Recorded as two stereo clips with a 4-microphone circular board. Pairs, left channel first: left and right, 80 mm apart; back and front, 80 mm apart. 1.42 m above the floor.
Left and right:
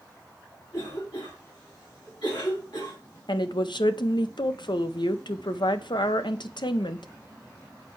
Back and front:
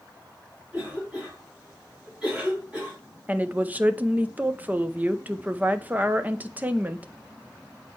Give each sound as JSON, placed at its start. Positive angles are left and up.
{"t": 0.7, "sound": "a cough", "azimuth_deg": 75, "distance_m": 4.0}
{"t": 3.3, "sound": "a woman speaking", "azimuth_deg": 70, "distance_m": 0.6}